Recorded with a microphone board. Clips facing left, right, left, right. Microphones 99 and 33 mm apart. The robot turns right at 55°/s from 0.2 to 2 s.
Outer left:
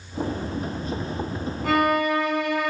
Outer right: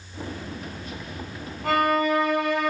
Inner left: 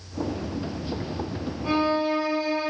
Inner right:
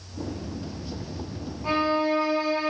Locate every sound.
1.6 s a violin: 45° right (ahead or behind), 2 m; by 2.7 s 30° right (ahead or behind), 2 m